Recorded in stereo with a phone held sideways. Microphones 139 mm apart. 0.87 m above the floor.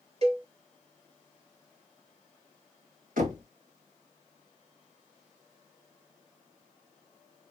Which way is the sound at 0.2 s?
50° right (ahead or behind).